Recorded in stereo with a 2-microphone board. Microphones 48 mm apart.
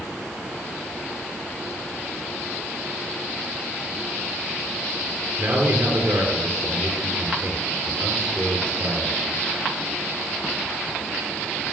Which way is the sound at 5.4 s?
65° right (ahead or behind).